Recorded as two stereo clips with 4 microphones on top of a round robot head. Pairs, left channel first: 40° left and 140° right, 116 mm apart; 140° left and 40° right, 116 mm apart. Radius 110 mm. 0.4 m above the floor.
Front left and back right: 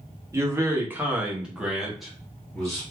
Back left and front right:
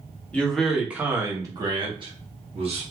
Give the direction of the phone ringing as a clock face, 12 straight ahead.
I don't hear a phone ringing.